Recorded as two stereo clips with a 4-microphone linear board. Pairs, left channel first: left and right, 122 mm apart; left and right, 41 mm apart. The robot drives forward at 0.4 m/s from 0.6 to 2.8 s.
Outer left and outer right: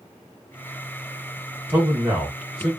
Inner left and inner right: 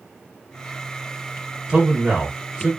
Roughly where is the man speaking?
Centre.